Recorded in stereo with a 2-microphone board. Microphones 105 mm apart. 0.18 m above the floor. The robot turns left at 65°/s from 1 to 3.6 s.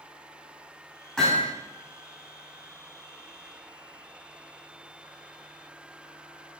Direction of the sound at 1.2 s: 10° left (ahead or behind).